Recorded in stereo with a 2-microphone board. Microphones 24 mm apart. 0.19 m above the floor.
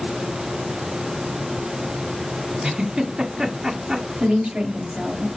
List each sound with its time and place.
2.6 s a giggle: 40° right (ahead or behind), 1.3 m
4.2 s a woman speaking: 70° right (ahead or behind), 3.5 m